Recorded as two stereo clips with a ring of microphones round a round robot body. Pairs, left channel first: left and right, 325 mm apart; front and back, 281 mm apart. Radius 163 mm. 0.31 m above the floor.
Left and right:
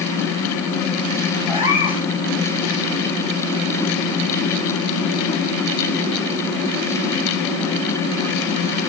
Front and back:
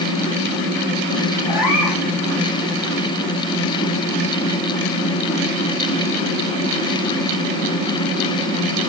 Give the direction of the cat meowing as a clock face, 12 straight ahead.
12 o'clock.